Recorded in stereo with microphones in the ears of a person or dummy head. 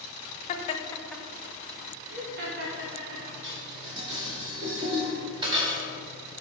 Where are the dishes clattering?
25° right (ahead or behind), 1.4 m.